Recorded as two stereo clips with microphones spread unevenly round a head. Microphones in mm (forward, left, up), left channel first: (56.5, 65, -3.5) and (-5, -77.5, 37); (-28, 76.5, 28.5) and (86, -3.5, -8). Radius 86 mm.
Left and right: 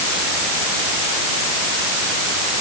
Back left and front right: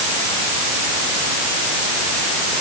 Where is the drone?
No drone in this recording.